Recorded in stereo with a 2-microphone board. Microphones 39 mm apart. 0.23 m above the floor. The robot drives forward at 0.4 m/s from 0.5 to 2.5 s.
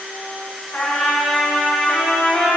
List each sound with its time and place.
0.7 s a trumpet: 40° left (ahead or behind), 0.8 m; by 2.5 s 25° left (ahead or behind), 1.1 m